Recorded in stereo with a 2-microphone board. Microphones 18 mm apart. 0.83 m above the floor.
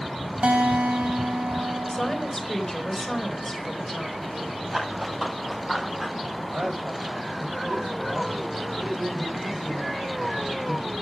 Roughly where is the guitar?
Right.